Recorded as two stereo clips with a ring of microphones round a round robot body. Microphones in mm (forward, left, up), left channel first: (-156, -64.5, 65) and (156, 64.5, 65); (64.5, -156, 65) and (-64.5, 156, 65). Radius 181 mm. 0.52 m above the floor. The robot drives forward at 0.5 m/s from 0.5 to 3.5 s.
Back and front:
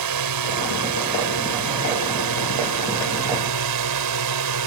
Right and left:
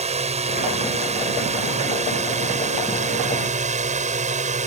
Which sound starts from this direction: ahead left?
A drone, at 0.0 s.